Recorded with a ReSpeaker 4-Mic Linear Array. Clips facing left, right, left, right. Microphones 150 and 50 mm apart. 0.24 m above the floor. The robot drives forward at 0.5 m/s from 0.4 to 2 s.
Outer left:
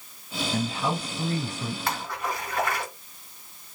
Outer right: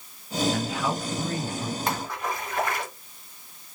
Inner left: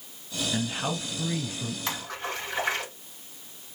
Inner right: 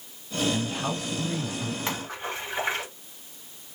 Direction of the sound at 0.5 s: 25° left (ahead or behind).